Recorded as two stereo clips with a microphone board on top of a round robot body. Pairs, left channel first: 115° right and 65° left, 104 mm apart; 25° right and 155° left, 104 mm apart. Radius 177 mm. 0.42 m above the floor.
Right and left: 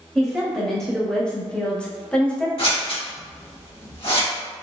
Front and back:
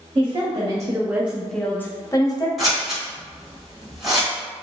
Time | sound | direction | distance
0.1 | a woman speaking | 160° left | 1.2 m
2.6 | scissors | 115° right | 1.9 m